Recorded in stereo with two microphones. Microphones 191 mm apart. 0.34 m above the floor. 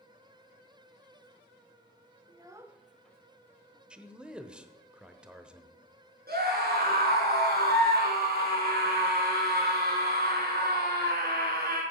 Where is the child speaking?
25° right (ahead or behind), 0.7 m; by 3.8 s 15° left (ahead or behind), 1.6 m.